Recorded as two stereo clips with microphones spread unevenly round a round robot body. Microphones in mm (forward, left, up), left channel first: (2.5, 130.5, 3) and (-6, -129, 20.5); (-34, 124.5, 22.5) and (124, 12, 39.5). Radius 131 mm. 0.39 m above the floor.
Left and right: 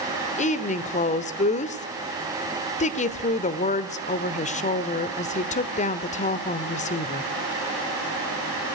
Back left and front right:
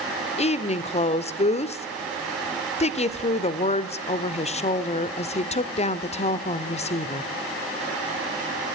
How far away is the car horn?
I don't hear a car horn.